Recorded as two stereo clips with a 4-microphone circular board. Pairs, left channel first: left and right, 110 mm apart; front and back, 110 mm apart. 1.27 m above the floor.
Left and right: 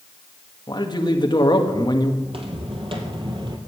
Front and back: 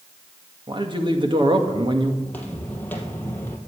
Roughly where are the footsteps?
Right.